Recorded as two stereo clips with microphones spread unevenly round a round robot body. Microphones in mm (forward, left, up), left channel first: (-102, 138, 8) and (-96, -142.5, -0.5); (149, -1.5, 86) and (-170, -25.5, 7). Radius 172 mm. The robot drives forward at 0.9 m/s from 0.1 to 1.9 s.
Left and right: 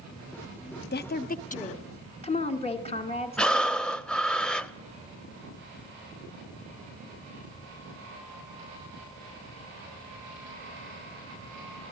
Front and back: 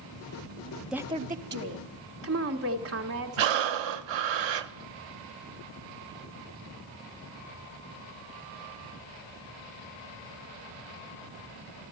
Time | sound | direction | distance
0.9 | a woman speaking | 115° left | 0.8 m
3.4 | breathing | straight behind | 0.6 m